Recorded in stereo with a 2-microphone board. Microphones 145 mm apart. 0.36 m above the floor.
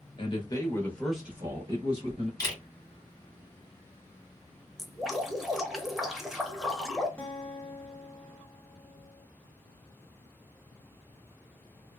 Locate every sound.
0.2 s a man speaking: 35° left (ahead or behind), 1.0 m; by 2.3 s 45° right (ahead or behind), 1.1 m
2.4 s a camera shutter: 25° left (ahead or behind), 1.5 m
4.8 s dripping: centre (ahead or behind), 0.7 m
7.2 s a guitar: 15° left (ahead or behind), 0.7 m